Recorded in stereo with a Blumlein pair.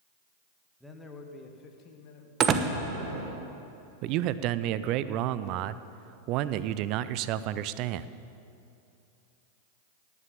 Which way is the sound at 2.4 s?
30° right.